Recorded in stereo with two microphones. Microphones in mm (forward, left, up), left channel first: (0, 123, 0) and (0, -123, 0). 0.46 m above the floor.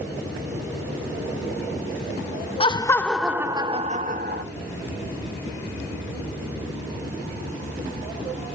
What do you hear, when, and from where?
2.6 s laughter: 25° left (ahead or behind), 0.7 m; by 4.4 s 45° right (ahead or behind), 0.9 m